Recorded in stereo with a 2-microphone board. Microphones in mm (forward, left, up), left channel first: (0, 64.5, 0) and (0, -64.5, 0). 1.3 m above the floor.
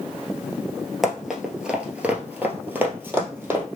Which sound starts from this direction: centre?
Running footsteps, at 1.0 s.